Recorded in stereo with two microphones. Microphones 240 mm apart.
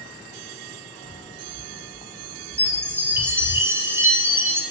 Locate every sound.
1.0 s footsteps: 15° left (ahead or behind), 3.5 m; by 3.6 s 35° left (ahead or behind), 5 m
2.6 s a chime: 10° right (ahead or behind), 3.5 m